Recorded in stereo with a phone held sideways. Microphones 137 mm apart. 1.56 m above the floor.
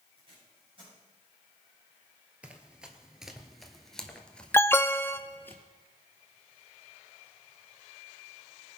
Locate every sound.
0.2 s tape being pulled: 40° right (ahead or behind), 7.5 m
2.4 s running footsteps: 10° right (ahead or behind), 1.7 m; by 5.5 s 15° left (ahead or behind), 1.8 m
4.5 s an alarm: 15° left (ahead or behind), 0.6 m